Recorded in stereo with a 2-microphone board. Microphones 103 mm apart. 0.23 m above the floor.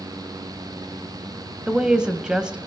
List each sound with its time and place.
1.7 s a woman speaking: 10° right (ahead or behind), 0.9 m